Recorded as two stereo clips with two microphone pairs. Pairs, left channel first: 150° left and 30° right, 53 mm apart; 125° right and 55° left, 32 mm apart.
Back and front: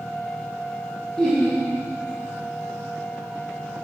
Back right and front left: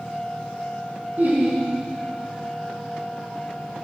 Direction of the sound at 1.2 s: 70° left.